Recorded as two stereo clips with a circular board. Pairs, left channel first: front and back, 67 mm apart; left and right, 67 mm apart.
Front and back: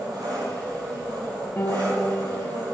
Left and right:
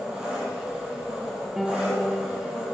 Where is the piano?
10° right, 1.2 m.